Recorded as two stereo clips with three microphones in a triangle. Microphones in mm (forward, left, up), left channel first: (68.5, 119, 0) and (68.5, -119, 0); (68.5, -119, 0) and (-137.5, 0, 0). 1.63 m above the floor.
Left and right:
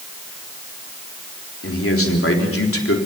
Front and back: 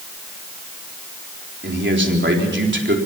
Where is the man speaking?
110° left, 3.5 m.